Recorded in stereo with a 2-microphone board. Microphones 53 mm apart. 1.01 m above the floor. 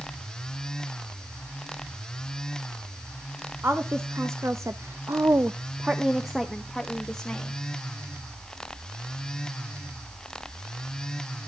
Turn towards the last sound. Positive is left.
turn(degrees=10)  # may be behind; listen again after turning